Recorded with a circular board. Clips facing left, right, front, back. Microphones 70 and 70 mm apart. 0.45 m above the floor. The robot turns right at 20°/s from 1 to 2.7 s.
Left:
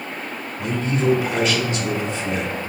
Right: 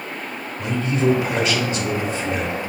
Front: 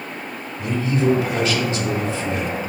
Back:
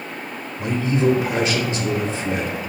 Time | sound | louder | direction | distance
0.6 | a man speaking | right 1 dB, back 1 dB | straight behind | 0.7 m